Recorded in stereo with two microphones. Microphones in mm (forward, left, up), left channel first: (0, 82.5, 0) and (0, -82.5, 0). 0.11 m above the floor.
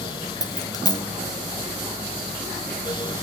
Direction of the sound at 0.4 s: 25° left (ahead or behind).